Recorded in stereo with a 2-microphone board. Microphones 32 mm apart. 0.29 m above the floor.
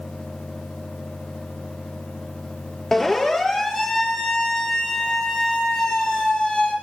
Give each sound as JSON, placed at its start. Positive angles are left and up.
{"t": 2.9, "sound": "a siren", "side_deg": 15, "distance_m": 8.5}